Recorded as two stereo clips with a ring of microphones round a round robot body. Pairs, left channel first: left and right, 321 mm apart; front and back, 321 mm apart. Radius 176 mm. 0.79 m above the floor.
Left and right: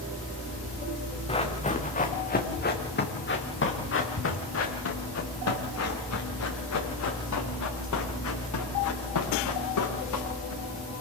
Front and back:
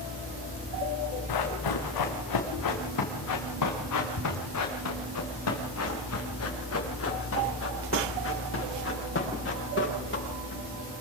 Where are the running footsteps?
15° left, 4 m; by 10.6 s 60° left, 9 m.